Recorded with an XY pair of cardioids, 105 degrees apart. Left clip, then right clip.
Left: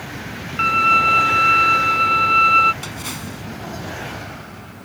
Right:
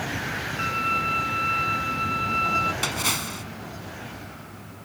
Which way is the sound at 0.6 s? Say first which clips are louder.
Left 11 dB; 65° left.